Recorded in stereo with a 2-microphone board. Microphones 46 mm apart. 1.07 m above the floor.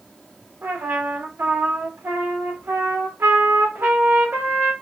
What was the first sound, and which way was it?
A trumpet, 80° right.